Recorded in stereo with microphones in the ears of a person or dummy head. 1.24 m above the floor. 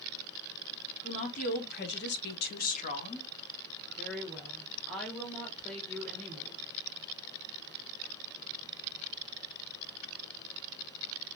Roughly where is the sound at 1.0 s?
Left.